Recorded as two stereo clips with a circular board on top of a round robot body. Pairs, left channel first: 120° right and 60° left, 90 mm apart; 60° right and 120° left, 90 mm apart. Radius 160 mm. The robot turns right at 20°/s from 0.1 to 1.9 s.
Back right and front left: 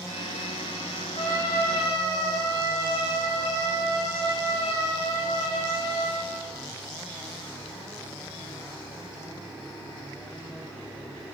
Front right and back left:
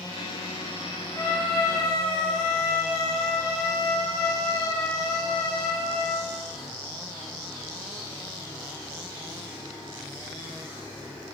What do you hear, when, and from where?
1.1 s a trumpet: 140° right, 1.0 m; by 6.3 s 125° right, 1.0 m